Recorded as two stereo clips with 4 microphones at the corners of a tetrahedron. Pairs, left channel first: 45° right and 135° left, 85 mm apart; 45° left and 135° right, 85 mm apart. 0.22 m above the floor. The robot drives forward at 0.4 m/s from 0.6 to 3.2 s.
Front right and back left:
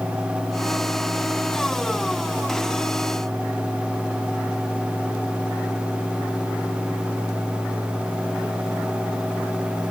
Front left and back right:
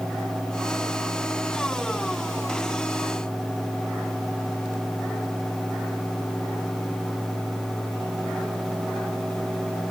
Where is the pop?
I don't hear a pop.